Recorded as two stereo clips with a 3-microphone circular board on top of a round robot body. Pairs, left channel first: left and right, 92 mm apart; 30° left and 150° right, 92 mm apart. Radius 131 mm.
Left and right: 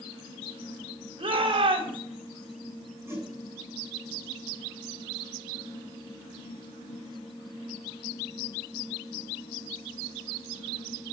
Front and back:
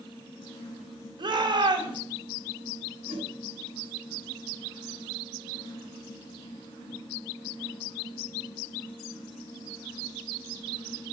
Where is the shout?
115° right, 3 m.